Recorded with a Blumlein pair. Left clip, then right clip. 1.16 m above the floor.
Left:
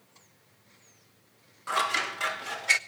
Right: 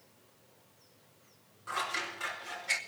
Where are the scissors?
65° left, 1.0 m.